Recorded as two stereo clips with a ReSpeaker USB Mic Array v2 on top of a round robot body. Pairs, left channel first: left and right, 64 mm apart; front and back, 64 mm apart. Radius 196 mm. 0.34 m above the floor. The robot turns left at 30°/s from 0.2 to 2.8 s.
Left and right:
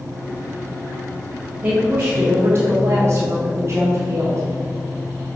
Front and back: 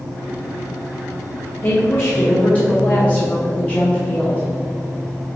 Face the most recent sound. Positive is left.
turn(degrees=-65)